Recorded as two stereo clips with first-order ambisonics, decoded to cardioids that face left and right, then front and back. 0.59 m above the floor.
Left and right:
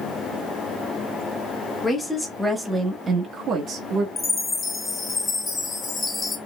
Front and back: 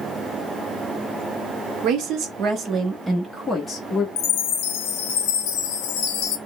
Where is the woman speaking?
160° left, 1.0 m; by 4.1 s 60° right, 1.0 m.